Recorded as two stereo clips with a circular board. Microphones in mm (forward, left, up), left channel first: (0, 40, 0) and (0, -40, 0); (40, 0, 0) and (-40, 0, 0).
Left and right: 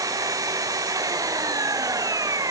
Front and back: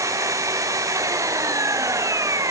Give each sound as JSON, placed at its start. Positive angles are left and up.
{"t": 0.0, "sound": "an engine running", "azimuth_deg": -135}